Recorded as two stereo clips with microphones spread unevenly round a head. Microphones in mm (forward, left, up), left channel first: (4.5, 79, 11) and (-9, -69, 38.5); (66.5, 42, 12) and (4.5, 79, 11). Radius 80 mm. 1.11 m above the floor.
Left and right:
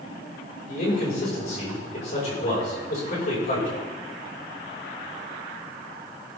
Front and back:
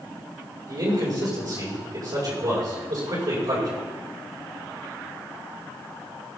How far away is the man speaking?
About 5.5 m.